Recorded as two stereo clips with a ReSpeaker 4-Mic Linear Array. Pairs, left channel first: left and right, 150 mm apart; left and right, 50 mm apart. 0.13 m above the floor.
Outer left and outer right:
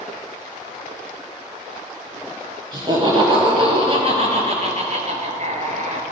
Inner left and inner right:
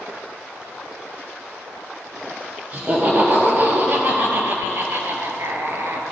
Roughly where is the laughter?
Right.